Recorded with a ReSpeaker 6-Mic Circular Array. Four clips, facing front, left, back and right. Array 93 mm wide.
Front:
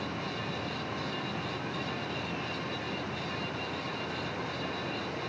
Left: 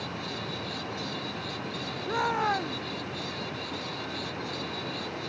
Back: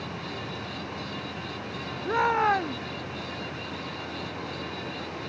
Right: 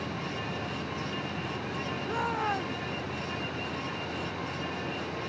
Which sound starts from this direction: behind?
A shout, at 2.0 s.